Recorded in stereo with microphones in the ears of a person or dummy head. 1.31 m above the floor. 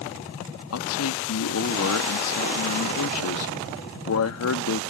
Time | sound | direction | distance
0.7 | a man speaking | 80° left | ?